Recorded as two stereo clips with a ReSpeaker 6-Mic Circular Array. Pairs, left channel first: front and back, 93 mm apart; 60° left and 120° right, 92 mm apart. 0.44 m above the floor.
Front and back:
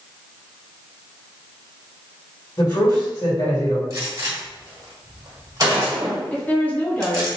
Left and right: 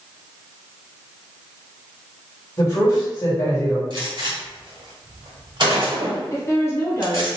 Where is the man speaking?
25° left, 1.6 m.